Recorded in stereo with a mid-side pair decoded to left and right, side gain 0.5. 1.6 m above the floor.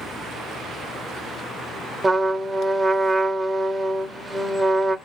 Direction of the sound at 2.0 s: 20° right.